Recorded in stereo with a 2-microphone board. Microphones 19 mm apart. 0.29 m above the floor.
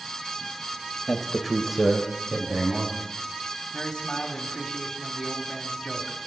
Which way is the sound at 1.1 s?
35° left (ahead or behind).